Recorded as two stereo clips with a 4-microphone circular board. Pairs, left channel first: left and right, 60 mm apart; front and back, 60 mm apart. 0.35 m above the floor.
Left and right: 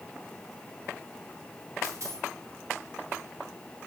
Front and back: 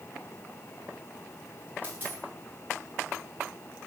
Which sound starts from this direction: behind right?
A dropped coin, at 1.8 s.